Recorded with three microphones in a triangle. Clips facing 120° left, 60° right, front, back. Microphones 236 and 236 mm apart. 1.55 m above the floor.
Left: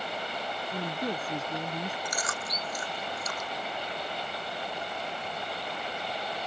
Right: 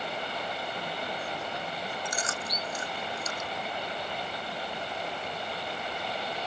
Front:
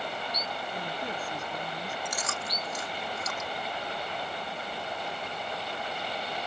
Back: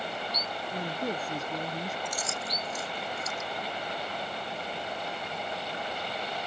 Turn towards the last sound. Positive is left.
turn(degrees=5)